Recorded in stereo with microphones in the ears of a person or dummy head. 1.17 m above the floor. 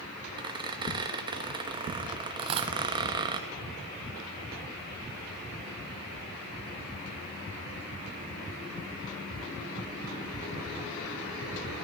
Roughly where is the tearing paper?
Right.